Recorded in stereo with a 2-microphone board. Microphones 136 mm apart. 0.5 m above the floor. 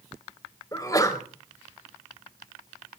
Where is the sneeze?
25° left (ahead or behind), 2.5 m.